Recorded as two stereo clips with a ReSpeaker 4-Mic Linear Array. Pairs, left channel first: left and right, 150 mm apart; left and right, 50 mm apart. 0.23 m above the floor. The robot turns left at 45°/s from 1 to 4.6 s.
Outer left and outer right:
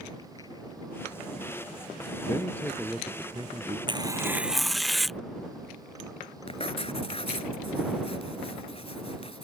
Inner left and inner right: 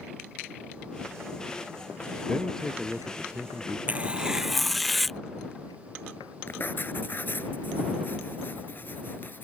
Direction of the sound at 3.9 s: 145° right.